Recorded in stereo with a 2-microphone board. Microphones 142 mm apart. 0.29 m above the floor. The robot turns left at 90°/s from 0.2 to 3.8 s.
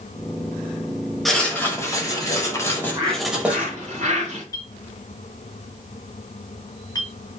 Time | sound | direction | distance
1.2 | writing | centre (ahead or behind) | 1.3 m
2.7 | a bird | 15° right | 2 m
4.5 | a clink | 25° left (ahead or behind) | 1.7 m